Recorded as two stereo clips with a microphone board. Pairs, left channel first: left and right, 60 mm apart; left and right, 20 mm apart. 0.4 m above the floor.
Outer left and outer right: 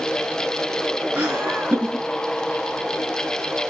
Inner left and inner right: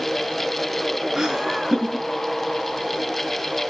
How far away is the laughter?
About 6 m.